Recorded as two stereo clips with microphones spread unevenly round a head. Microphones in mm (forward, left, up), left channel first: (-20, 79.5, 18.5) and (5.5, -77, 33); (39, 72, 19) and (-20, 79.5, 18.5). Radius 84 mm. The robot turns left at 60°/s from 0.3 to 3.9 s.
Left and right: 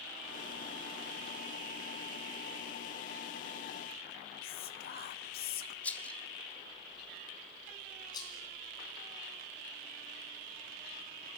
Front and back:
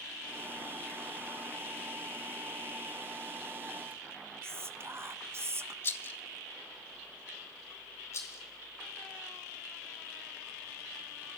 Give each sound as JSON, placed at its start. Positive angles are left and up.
{"t": 4.4, "sound": "whispering", "azimuth_deg": 125, "distance_m": 0.8}
{"t": 5.8, "sound": "a rattle", "azimuth_deg": 15, "distance_m": 0.7}
{"t": 8.1, "sound": "a rattle", "azimuth_deg": 30, "distance_m": 3.5}